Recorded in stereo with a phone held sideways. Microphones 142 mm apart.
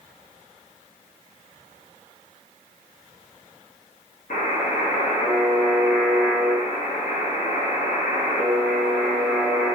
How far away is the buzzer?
About 0.7 m.